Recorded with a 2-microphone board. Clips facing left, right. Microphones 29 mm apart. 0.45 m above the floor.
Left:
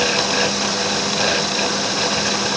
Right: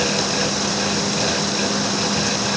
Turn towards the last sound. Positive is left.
No sound to turn to.